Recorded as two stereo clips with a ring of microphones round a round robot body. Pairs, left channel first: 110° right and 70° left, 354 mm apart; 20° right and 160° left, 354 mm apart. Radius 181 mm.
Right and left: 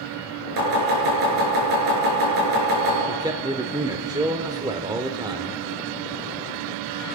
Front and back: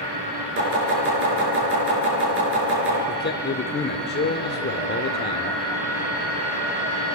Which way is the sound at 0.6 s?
100° left.